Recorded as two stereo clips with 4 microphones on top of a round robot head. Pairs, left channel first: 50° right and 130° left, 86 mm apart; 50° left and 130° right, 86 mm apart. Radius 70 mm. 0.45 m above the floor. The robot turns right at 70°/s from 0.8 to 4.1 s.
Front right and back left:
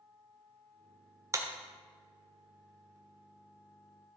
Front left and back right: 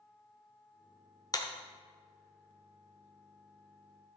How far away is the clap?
About 1.4 m.